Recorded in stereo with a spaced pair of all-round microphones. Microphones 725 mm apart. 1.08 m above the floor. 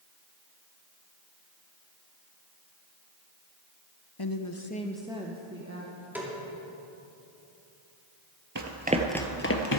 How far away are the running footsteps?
About 1.1 m.